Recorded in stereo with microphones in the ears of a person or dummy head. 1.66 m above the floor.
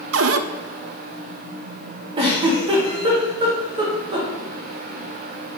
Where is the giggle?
30° right (ahead or behind), 1.2 m.